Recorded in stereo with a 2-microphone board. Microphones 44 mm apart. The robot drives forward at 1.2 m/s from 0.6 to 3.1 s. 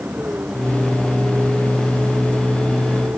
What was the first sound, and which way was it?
A vehicle, 45° right (ahead or behind).